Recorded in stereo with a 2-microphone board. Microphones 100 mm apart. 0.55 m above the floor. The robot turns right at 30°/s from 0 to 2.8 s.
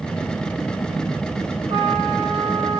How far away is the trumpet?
About 7.5 m.